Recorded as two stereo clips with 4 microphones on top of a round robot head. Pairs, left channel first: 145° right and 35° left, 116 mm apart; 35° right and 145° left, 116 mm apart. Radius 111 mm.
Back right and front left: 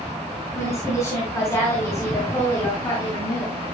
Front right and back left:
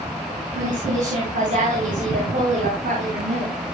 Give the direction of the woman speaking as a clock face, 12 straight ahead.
7 o'clock.